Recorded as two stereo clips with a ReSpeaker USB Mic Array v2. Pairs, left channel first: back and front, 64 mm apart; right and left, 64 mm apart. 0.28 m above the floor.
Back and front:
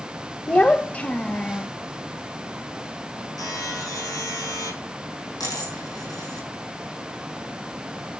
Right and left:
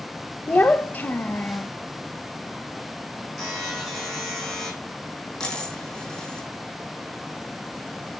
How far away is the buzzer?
About 7 m.